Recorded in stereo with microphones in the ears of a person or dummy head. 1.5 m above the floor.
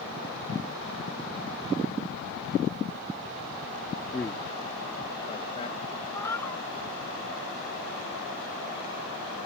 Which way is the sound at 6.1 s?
15° left (ahead or behind).